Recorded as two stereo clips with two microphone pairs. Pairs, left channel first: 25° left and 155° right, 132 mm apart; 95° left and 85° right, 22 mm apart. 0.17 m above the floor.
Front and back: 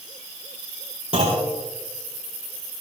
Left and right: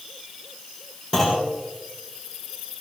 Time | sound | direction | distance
1.1 | a clunk | 165° left | 7 m